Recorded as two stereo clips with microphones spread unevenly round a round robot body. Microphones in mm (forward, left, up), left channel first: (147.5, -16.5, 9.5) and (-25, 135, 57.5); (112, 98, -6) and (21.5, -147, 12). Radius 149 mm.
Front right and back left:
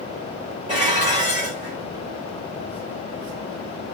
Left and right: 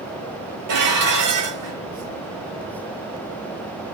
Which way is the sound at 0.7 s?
145° right.